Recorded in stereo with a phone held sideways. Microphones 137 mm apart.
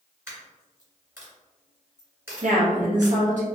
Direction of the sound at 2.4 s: 65° right (ahead or behind).